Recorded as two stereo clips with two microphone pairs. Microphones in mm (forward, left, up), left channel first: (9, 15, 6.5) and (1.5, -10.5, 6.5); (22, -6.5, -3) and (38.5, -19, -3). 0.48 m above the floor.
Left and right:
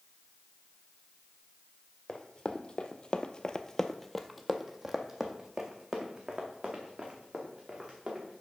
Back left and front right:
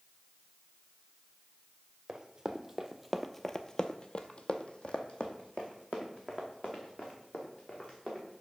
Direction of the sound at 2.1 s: 20° left.